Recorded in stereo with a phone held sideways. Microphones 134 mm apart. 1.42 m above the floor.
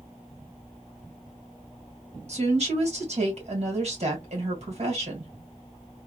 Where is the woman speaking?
50° right (ahead or behind), 2 m.